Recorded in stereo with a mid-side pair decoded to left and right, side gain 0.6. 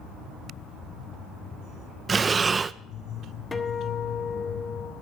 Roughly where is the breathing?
Ahead right.